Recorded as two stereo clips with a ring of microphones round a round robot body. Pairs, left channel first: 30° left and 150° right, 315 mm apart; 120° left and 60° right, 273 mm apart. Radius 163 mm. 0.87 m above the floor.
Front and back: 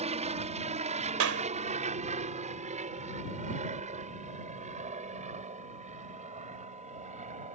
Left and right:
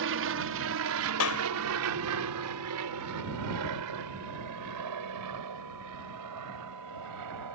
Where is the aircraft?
85° right; by 7.5 s 80° right.